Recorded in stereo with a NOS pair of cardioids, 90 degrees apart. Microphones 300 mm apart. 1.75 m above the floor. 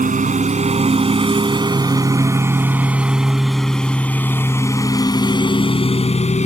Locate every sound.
0.0 s a lawn mower: 25° right; by 6.5 s 25° left